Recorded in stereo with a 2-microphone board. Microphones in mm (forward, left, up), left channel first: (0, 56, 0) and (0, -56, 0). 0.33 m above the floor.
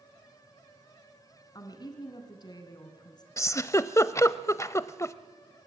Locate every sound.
1.6 s a woman speaking: 40° left (ahead or behind), 3 m
3.4 s a giggle: 25° left (ahead or behind), 0.6 m